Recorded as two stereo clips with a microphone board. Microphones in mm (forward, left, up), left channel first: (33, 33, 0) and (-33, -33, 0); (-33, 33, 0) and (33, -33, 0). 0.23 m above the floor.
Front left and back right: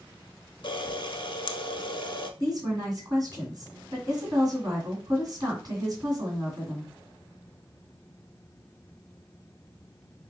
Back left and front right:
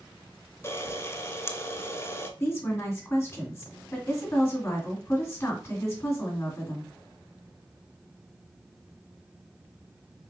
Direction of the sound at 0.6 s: 75° left.